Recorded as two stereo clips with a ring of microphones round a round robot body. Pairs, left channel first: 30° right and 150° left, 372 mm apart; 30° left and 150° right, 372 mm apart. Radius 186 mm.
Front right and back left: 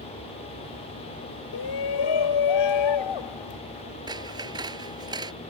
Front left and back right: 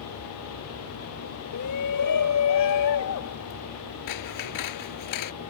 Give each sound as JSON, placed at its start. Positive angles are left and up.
{"t": 1.5, "sound": "a shout", "azimuth_deg": -10}
{"t": 4.1, "sound": "scissors", "azimuth_deg": 70}